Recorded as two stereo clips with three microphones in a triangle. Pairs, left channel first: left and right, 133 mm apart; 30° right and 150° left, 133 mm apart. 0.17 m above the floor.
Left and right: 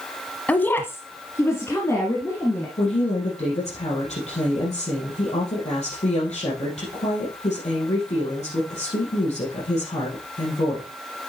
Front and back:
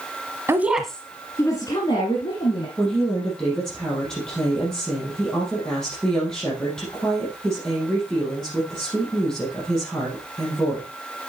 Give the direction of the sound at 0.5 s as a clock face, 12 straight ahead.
7 o'clock.